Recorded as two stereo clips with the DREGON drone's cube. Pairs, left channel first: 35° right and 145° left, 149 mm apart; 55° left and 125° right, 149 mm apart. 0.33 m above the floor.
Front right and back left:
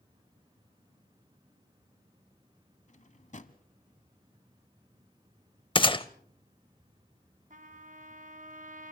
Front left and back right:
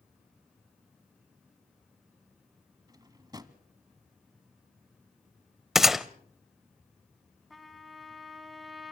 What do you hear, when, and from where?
2.9 s a drawer: 65° right, 0.9 m
5.8 s a gunshot: 40° right, 0.6 m
7.5 s a trumpet: 145° left, 2 m